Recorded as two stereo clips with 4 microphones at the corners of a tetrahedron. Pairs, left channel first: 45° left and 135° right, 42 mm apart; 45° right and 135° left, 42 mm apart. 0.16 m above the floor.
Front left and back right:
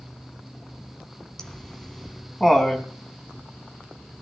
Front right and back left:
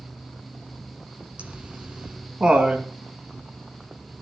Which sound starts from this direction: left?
Laughter, at 1.4 s.